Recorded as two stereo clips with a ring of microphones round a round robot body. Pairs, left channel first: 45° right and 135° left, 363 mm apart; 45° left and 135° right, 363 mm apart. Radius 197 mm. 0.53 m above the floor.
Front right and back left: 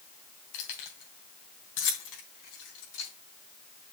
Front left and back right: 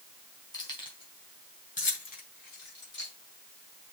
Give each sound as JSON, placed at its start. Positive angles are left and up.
{"t": 0.5, "sound": "keys jangling", "azimuth_deg": -35, "distance_m": 3.5}